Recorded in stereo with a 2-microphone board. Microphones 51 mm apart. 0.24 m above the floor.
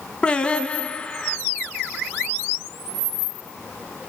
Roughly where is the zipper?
I don't hear a zipper.